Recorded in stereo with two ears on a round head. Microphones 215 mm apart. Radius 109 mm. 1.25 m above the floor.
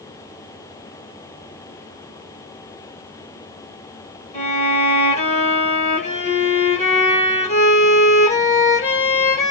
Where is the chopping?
I don't hear chopping.